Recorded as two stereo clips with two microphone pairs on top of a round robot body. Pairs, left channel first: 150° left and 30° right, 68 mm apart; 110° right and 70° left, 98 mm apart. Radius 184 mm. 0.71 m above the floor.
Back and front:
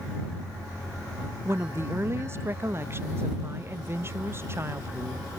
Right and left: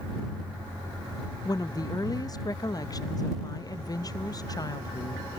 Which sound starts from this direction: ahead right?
A woman speaking, at 1.4 s.